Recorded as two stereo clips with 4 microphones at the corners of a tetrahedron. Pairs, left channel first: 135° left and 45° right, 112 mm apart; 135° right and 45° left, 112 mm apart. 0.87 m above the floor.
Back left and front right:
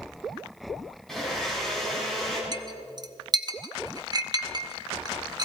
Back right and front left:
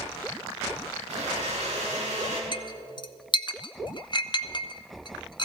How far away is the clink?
About 0.7 m.